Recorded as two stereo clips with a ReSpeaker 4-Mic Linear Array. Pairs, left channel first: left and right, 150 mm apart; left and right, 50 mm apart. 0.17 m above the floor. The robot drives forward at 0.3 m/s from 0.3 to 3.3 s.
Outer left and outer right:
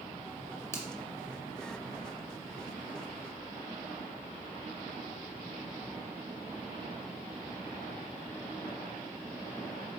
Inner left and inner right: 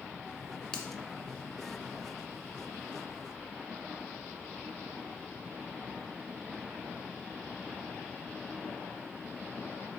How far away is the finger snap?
About 1.4 m.